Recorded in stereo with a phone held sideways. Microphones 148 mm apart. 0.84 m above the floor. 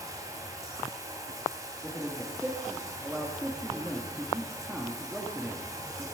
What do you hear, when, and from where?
0.0 s running water: 20° right (ahead or behind), 2.5 m
1.8 s a man speaking: 5° right (ahead or behind), 1.4 m